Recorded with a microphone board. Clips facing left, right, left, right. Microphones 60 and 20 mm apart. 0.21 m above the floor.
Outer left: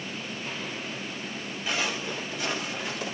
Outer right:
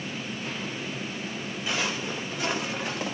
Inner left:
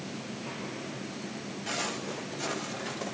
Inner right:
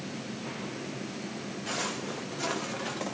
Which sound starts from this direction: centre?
Footsteps, at 1.7 s.